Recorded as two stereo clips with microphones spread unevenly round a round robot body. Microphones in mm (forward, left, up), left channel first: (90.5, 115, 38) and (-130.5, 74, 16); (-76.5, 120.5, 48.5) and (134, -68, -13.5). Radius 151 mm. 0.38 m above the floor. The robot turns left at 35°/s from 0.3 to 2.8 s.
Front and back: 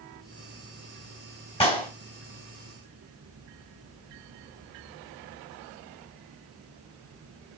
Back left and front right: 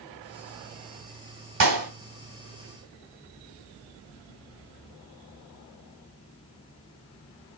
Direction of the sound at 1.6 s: 60° right.